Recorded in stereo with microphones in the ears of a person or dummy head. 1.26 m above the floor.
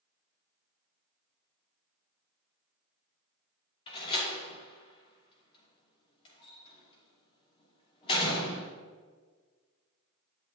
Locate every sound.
3.9 s a door slam: 30° left (ahead or behind), 2.5 m